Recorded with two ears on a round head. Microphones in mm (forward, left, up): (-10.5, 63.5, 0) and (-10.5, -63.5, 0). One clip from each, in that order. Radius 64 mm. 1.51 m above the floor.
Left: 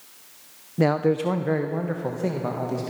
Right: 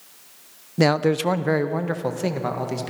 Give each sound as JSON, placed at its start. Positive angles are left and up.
{"t": 0.8, "sound": "a man speaking", "side_deg": -60, "distance_m": 0.7}